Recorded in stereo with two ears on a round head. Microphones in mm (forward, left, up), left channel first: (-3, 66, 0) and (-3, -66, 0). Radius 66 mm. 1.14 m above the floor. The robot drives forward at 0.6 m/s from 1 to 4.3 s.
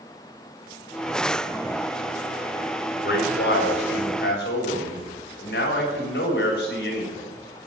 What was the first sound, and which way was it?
A man speaking, 80° left.